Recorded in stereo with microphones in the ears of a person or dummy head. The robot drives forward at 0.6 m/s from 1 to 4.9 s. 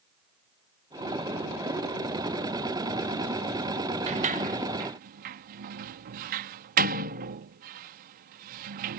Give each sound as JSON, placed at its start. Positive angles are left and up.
{"t": 4.1, "sound": "a sliding door", "side_deg": -35}